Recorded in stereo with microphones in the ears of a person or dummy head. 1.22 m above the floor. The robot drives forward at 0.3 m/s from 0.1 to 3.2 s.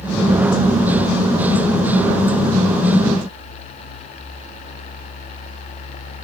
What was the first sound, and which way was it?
Only background noise.